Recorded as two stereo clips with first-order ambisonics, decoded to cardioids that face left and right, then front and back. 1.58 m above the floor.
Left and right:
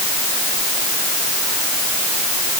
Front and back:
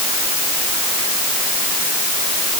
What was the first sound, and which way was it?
Only background noise.